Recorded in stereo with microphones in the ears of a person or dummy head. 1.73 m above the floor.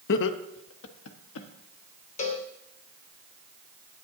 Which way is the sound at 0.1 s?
65° left (ahead or behind).